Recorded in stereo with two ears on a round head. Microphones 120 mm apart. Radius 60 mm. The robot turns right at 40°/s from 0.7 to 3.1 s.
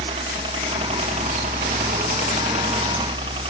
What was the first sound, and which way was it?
A helicopter, 40° right (ahead or behind).